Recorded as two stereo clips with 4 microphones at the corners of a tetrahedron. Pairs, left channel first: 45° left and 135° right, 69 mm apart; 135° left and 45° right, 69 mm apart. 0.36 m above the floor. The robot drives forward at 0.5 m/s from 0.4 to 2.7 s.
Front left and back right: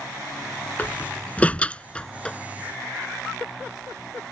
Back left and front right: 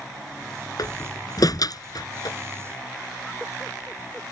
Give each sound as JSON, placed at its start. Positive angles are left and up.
{"t": 0.8, "sound": "a door slam", "azimuth_deg": 115}